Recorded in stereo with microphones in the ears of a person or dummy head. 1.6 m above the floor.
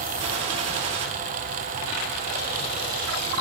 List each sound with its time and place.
0.2 s a gunshot: 30° right (ahead or behind), 0.8 m